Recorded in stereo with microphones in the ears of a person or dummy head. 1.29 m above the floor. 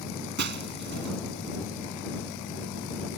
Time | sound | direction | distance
0.4 | breaking glass | 60° right (ahead or behind) | ?